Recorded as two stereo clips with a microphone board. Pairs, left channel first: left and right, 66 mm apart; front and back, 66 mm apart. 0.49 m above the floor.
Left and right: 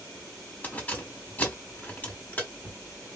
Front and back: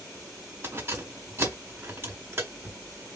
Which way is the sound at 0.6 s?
145° left.